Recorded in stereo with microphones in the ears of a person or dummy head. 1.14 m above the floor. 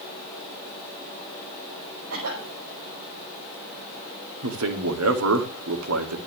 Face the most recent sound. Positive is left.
turn(degrees=-70)  # may be behind; listen again after turning